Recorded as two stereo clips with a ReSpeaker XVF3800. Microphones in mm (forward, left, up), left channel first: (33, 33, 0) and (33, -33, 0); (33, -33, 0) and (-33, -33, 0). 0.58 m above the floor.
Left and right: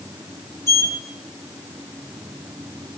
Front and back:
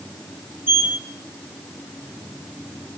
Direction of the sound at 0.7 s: 130° left.